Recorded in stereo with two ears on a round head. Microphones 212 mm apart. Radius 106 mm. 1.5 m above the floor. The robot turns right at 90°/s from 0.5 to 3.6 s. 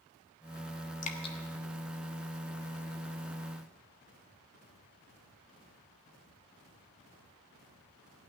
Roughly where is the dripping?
Left.